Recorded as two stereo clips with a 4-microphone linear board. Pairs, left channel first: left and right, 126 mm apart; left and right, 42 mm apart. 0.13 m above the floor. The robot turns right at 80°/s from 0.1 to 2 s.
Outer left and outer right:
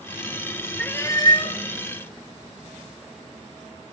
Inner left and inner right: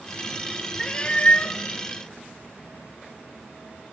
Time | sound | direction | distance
0.8 | a cat meowing | 15° left | 0.7 m